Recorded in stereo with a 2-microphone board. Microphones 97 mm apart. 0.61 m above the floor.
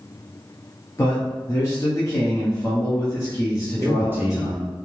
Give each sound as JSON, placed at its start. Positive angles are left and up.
{"t": 1.0, "sound": "a man speaking", "side_deg": 35, "distance_m": 0.8}
{"t": 3.8, "sound": "a man speaking", "side_deg": -20, "distance_m": 0.8}